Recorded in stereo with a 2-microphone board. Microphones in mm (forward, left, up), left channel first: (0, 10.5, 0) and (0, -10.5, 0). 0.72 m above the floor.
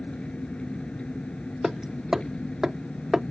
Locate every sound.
0.0 s an engine running: 60° left (ahead or behind)
1.6 s hammering: 20° right (ahead or behind)